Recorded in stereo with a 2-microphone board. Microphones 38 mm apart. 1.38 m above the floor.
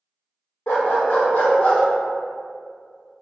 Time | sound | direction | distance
0.7 | a dog barking | 65° left (ahead or behind) | 1.9 m